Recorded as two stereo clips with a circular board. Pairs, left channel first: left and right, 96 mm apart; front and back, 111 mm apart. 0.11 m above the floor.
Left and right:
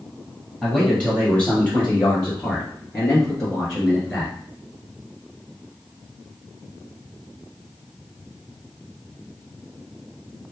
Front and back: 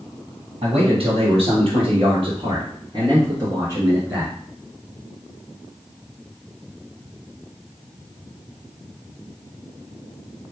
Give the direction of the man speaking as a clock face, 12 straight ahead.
6 o'clock.